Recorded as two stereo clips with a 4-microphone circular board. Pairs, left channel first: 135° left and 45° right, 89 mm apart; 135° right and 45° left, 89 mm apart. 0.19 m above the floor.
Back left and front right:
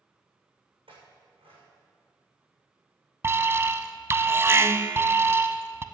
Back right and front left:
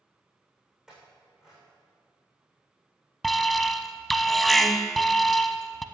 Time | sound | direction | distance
0.9 | a clink | 40° right | 6.5 m
3.2 | an alarm | 50° right | 0.7 m